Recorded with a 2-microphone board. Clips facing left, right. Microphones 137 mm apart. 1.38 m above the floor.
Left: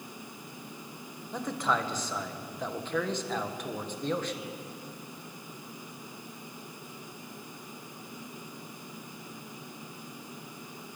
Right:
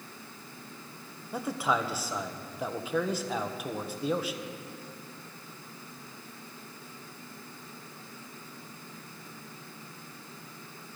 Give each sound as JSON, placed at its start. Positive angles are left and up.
{"t": 1.3, "sound": "a man speaking", "side_deg": -10, "distance_m": 1.1}